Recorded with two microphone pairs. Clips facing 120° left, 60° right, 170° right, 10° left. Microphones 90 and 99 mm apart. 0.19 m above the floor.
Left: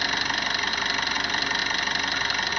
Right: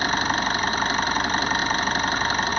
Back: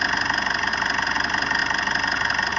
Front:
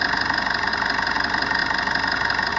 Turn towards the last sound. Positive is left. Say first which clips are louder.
# right 5 dB, front 1 dB
turn(degrees=-70)